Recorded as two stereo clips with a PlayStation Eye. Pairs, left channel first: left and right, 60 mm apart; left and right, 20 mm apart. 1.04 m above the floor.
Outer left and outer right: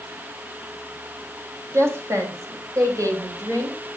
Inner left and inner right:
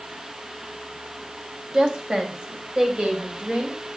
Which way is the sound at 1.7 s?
50° right (ahead or behind).